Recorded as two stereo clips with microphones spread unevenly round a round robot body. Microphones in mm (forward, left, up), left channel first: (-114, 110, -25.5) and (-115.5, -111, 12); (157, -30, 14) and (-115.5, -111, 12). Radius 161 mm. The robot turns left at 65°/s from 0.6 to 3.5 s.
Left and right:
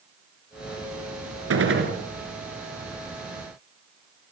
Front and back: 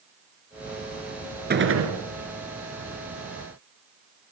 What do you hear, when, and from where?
1.5 s a gunshot: 105° right, 3.5 m; by 1.9 s 135° right, 3.5 m